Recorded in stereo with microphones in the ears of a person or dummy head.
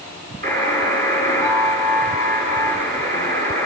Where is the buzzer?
50° right (ahead or behind), 9.5 m.